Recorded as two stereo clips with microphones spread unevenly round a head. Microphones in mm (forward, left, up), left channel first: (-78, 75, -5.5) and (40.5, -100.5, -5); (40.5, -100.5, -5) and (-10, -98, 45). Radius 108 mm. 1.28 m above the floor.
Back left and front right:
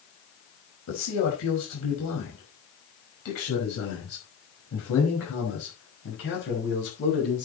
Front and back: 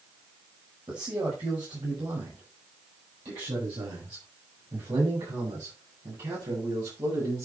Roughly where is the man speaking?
Behind left.